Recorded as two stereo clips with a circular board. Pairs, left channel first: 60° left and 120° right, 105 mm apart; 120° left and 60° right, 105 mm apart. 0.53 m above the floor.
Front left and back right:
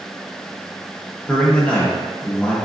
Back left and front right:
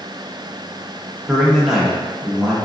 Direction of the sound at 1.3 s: 10° left.